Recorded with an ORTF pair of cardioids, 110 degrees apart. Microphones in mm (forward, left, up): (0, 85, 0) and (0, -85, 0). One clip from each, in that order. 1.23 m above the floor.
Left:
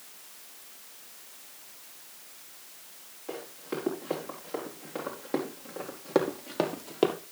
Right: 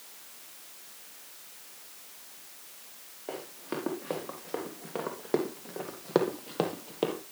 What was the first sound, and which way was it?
Running footsteps, 25° right.